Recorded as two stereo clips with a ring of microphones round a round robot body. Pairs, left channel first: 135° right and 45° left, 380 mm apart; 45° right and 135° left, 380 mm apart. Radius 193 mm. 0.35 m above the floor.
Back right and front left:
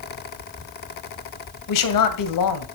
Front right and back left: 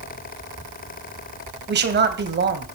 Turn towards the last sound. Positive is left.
turn(degrees=-165)